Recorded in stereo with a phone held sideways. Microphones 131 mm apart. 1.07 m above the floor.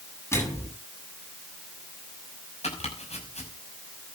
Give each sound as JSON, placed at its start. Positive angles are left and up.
{"t": 0.3, "sound": "a microwave", "side_deg": 20, "distance_m": 8.0}
{"t": 2.6, "sound": "chopping", "side_deg": 55, "distance_m": 5.5}